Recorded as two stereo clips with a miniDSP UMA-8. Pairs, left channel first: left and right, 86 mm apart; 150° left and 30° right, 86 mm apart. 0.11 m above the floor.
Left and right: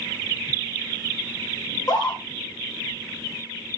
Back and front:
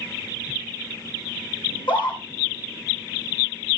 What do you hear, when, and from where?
1.7 s a scream: 130° left, 6 m